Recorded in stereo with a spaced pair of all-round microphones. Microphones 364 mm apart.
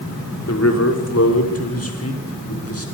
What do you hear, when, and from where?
0.5 s a man speaking: 50° left (ahead or behind), 6 m; by 2.9 s 45° left (ahead or behind), 8 m